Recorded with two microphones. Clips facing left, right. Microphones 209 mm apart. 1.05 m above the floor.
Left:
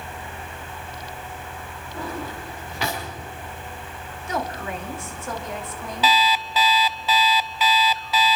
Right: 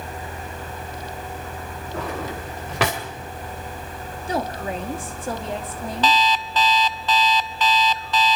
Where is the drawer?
80° right, 2.5 m.